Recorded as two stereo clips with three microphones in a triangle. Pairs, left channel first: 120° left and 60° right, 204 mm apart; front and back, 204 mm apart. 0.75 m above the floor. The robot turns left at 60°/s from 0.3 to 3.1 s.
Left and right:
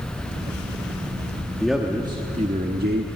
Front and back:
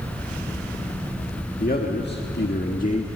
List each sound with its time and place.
1.6 s a man speaking: 35° left, 1.6 m; by 3.1 s 55° right, 1.6 m